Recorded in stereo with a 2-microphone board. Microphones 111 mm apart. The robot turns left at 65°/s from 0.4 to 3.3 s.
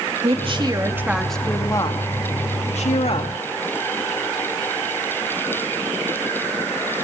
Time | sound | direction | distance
0.2 | a woman speaking | 125° right | 2 m